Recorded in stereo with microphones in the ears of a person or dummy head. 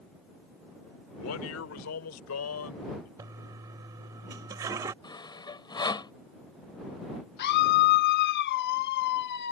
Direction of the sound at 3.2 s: 20° right (ahead or behind).